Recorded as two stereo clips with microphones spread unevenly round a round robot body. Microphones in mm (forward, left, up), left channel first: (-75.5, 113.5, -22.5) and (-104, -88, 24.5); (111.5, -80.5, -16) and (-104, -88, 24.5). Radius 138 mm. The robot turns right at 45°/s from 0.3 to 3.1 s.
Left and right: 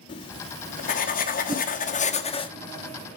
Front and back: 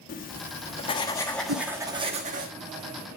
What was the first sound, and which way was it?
Writing, 30° left.